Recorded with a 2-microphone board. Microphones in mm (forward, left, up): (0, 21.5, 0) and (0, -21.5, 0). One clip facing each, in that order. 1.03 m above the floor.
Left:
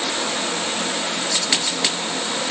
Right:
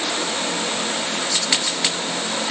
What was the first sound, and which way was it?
Only background noise.